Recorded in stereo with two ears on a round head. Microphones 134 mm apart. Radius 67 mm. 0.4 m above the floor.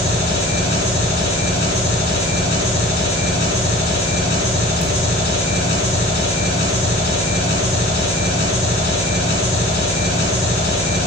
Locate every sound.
0.0 s an engine running: 50° left (ahead or behind), 3 m